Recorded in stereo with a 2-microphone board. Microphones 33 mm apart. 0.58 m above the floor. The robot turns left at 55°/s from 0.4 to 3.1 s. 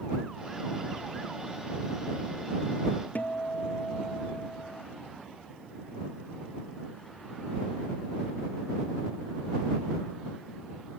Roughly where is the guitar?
Left.